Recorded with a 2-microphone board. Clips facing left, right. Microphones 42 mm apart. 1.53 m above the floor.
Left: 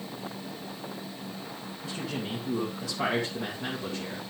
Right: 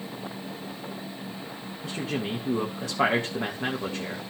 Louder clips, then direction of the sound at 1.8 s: Right 4 dB; 40° right (ahead or behind).